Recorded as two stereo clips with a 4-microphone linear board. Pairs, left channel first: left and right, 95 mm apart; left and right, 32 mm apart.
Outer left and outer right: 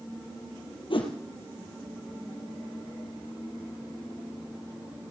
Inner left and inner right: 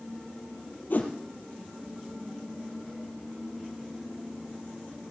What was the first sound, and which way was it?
A whoosh, 60° left (ahead or behind).